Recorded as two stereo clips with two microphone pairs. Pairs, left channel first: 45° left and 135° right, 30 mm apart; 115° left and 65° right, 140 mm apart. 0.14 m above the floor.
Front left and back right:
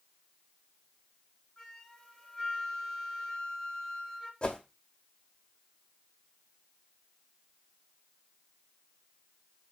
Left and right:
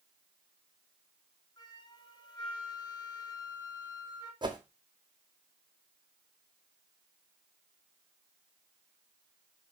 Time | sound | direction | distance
1.6 | a flute | 105° left | 1.8 m
4.4 | a whoosh | 10° right | 1.2 m